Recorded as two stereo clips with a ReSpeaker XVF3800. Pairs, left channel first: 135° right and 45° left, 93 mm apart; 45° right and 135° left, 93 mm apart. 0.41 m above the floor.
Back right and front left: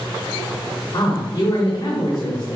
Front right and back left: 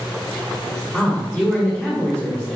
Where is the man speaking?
110° right, 1.8 m.